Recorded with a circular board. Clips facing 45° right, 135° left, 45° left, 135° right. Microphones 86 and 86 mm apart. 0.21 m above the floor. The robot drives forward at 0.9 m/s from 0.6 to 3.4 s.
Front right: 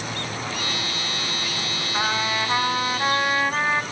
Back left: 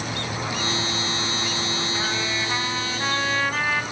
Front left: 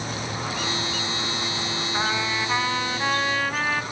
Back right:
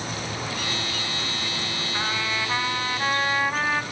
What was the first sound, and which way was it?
A trumpet, 30° right.